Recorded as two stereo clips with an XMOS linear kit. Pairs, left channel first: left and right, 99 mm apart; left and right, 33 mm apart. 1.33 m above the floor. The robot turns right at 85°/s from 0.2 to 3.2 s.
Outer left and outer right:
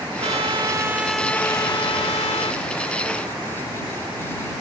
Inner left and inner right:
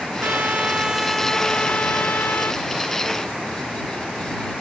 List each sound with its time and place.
0.2 s a trumpet: 80° right; by 2.6 s 125° left